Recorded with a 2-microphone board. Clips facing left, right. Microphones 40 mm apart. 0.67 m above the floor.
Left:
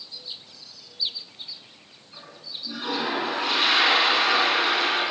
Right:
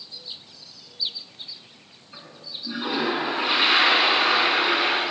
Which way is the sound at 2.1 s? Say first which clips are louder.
Right 1 dB; 20° right (ahead or behind).